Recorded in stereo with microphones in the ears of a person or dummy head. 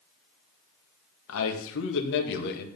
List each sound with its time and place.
1.3 s a man speaking: 85° left, 1.8 m; by 2.7 s 55° left (ahead or behind), 1.8 m